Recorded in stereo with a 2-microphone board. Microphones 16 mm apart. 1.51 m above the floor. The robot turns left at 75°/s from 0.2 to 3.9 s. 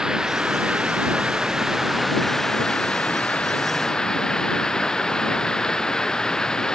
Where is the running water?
40° right; by 6.8 s 45° left.